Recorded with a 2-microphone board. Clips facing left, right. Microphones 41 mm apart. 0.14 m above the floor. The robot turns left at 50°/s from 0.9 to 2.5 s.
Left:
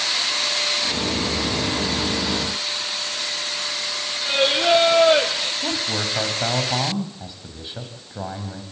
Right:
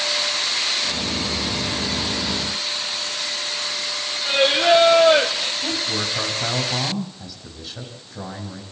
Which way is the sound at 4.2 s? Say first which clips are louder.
Right 2 dB; 5° right (ahead or behind).